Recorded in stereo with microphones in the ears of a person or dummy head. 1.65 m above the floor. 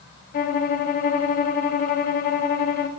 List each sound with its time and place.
0.3 s a violin: 45° left (ahead or behind), 0.6 m